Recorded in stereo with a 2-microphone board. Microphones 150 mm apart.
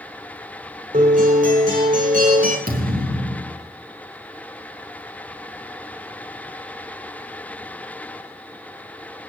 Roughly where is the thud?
Right.